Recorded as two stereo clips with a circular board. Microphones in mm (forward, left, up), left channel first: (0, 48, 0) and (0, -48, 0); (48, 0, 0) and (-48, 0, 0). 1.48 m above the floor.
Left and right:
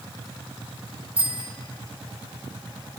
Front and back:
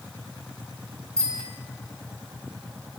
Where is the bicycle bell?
85° right, 6 m.